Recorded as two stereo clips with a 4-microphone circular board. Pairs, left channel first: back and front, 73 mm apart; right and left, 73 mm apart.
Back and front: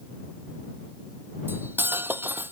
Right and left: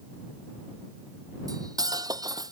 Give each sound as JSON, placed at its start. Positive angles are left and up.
{"t": 1.5, "sound": "cutlery clinking", "azimuth_deg": 60}